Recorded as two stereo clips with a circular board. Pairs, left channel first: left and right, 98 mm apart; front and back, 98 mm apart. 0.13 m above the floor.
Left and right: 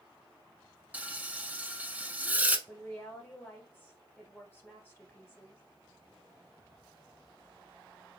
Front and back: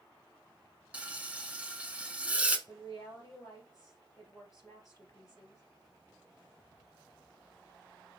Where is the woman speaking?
30° left, 1.6 m.